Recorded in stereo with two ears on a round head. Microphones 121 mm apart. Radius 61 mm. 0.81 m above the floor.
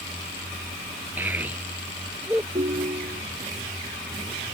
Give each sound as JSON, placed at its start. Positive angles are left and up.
{"t": 1.2, "sound": "a child speaking", "side_deg": -15}
{"t": 2.5, "sound": "a ringtone", "side_deg": -45}